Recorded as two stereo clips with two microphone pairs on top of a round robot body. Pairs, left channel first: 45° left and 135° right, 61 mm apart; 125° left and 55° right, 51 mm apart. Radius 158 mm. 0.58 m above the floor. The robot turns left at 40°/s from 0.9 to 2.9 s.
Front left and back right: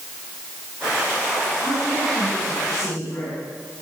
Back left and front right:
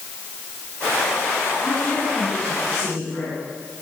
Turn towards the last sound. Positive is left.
turn(degrees=120)